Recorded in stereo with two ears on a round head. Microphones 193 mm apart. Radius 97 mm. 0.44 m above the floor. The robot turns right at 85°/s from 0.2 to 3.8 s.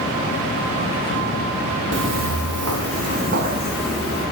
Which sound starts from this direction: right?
Footsteps, at 1.9 s.